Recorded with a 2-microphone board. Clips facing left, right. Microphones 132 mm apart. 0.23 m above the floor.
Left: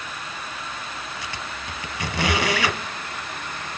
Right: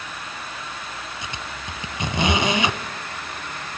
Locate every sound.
1.2 s a squeak: 20° right (ahead or behind), 1.3 m